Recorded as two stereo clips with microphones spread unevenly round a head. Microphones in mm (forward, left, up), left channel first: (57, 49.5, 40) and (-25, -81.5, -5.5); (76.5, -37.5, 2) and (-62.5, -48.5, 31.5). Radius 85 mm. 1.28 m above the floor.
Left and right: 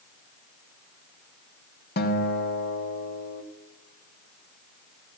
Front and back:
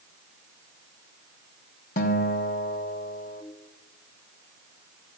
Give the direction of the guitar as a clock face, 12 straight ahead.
11 o'clock.